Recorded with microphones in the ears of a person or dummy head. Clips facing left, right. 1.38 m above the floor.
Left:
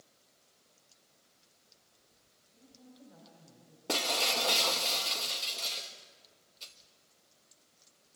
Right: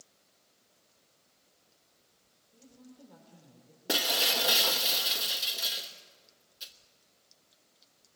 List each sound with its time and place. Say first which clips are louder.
2.5 s a woman speaking: right 3 dB; 75° right (ahead or behind), 5 m
3.9 s breaking glass: right 1 dB; 10° right (ahead or behind), 1.1 m